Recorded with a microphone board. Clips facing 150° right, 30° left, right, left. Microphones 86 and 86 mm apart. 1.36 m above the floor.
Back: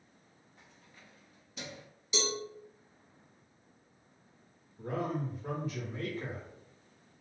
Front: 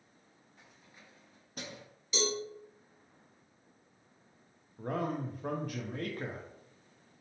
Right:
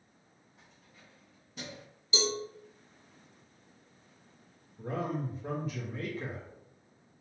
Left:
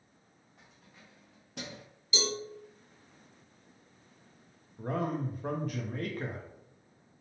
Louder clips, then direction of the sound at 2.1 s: Front 1 dB, right 2 dB; 55° right.